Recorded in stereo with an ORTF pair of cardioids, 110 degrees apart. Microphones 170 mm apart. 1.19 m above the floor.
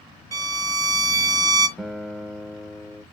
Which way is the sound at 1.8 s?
Straight ahead.